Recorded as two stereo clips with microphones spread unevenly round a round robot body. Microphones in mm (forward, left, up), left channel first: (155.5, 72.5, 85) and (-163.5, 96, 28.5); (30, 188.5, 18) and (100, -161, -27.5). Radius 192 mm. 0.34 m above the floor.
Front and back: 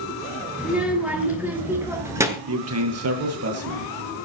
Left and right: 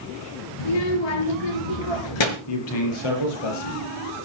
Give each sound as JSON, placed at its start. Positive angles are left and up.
{"t": 0.6, "sound": "a child speaking", "azimuth_deg": 90, "distance_m": 6.5}
{"t": 2.5, "sound": "a man speaking", "azimuth_deg": 130, "distance_m": 8.0}